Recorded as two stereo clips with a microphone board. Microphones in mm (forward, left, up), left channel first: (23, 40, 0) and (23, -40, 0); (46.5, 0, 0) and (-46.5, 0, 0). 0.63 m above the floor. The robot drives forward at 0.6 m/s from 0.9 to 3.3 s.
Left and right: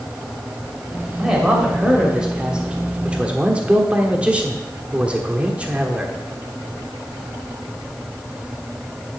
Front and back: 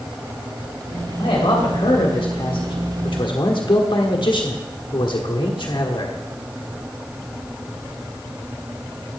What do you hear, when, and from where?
1.2 s a man speaking: 10° right, 2.5 m; by 6.1 s 15° right, 1.3 m